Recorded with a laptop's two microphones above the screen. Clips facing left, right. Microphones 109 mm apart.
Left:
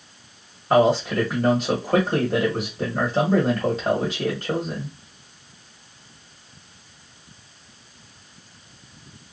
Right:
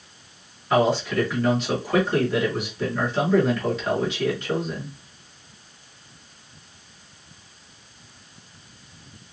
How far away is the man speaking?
About 1.3 m.